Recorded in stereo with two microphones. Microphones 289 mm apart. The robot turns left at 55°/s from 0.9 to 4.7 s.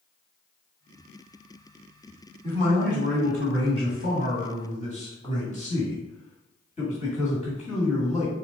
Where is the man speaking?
155° left, 1.9 m; by 8.3 s 30° left, 1.9 m.